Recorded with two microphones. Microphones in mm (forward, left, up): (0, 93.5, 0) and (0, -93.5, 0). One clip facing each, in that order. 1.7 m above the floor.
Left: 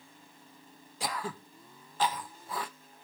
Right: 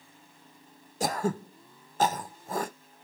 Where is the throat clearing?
45° right (ahead or behind).